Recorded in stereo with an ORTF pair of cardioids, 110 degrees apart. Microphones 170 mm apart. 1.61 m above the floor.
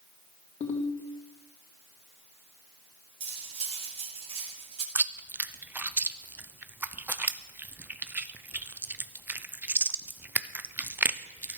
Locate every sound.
0.6 s a ringtone: 45° left, 3 m
3.2 s cutlery clinking: 40° right, 2.5 m
5.0 s chewing: 10° right, 0.7 m